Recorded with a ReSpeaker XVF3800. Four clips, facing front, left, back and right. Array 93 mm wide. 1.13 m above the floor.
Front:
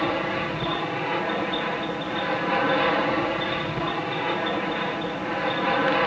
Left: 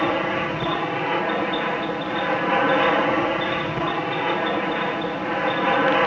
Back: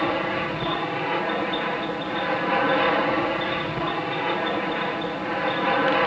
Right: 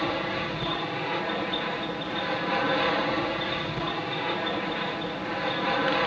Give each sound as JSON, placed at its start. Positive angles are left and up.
{"t": 0.0, "sound": "an aircraft", "azimuth_deg": 100}